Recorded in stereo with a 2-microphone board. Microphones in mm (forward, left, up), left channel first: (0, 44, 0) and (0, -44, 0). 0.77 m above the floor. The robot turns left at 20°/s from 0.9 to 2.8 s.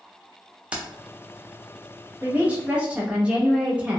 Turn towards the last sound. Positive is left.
turn(degrees=-15)  # may be behind; listen again after turning